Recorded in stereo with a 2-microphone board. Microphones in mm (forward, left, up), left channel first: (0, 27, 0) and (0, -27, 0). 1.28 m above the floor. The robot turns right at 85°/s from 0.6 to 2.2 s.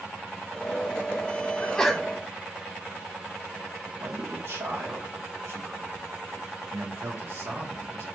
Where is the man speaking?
55° right (ahead or behind), 1.4 m.